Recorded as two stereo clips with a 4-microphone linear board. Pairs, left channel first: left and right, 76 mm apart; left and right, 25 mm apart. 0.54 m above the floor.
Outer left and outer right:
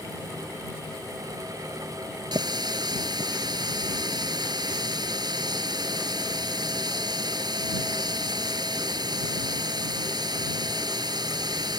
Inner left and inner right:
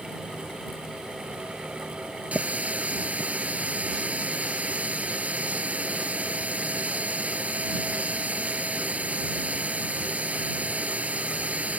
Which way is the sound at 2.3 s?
75° right (ahead or behind).